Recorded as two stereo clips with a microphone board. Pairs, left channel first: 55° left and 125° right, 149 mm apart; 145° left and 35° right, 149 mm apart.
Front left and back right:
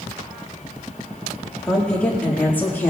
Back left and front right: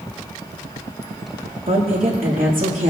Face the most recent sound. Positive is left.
turn(degrees=-20)